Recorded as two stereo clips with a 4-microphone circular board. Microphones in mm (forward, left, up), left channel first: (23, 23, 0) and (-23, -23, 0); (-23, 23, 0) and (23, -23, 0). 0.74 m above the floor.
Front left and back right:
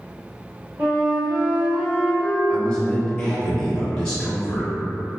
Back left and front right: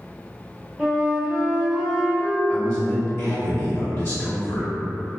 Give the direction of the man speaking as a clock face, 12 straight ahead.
8 o'clock.